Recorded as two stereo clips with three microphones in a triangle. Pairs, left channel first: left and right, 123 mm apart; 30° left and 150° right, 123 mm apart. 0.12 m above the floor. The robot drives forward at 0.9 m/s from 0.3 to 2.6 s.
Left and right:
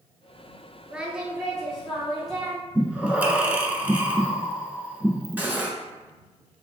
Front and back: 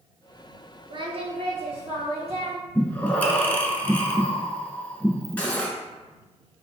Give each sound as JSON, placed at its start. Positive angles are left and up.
{"t": 0.9, "sound": "singing", "azimuth_deg": -170, "distance_m": 0.5}
{"t": 2.8, "sound": "breathing", "azimuth_deg": -30, "distance_m": 0.6}
{"t": 5.4, "sound": "cutlery clinking", "azimuth_deg": -35, "distance_m": 0.8}